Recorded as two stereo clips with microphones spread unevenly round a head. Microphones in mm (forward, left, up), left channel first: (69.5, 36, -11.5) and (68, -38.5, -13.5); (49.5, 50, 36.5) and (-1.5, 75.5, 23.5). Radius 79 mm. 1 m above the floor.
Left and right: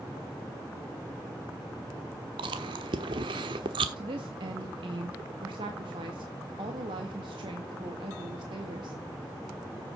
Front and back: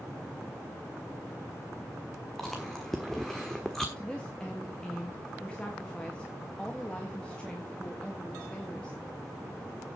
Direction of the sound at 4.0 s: 110° right.